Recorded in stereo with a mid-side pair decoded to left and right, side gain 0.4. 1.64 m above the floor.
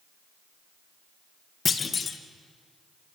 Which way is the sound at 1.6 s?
45° left.